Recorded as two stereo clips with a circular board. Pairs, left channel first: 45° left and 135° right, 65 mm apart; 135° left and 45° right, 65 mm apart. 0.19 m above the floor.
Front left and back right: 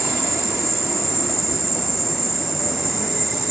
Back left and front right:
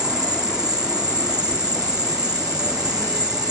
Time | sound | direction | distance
0.0 | an insect | 45° right | ?